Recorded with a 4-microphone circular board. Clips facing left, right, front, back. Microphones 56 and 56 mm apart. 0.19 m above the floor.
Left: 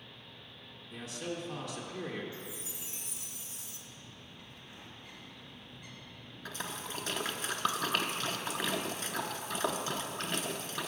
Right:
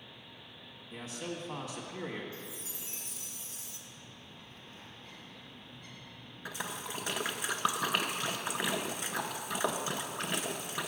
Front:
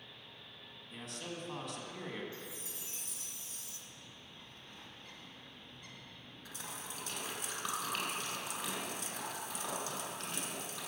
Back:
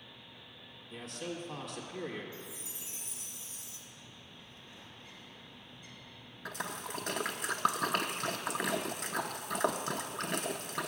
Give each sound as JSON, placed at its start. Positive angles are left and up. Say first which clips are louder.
{"t": 0.9, "sound": "a man speaking", "louder": "left 1 dB, back 4 dB", "azimuth_deg": -90, "distance_m": 1.2}
{"t": 2.3, "sound": "a chime", "louder": "left 1 dB, even", "azimuth_deg": 155, "distance_m": 1.4}
{"t": 3.9, "sound": "a bird", "louder": "even, back 1 dB", "azimuth_deg": 15, "distance_m": 1.7}
{"t": 6.5, "sound": "a splash", "louder": "right 1 dB, back 8 dB", "azimuth_deg": -165, "distance_m": 0.6}